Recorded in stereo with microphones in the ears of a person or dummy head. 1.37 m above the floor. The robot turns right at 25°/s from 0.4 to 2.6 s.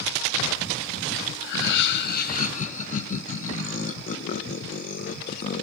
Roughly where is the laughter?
Left.